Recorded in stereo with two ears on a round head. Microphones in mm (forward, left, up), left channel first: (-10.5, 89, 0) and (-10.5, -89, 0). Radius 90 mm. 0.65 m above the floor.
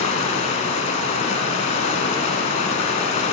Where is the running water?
35° left (ahead or behind), 0.9 m.